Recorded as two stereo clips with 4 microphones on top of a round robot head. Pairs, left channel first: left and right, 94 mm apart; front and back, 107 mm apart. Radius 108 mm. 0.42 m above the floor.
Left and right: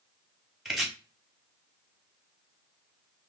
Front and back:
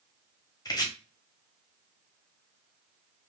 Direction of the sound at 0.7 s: 5° right.